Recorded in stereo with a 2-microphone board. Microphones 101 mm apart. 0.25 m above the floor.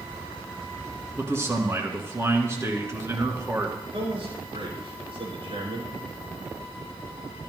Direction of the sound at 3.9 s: 70° right (ahead or behind).